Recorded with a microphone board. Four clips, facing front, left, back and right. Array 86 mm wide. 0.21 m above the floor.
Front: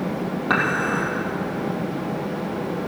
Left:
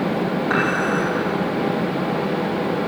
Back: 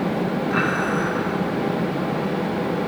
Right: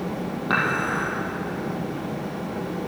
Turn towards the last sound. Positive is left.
turn(degrees=-20)